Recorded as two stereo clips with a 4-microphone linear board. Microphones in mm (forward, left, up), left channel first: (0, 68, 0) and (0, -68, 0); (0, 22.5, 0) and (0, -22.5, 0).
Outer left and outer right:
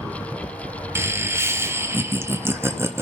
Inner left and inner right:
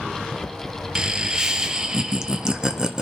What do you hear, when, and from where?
0.9 s laughter: 20° right (ahead or behind), 0.7 m